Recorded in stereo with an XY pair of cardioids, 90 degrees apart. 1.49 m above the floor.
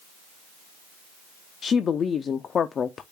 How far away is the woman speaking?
About 0.5 m.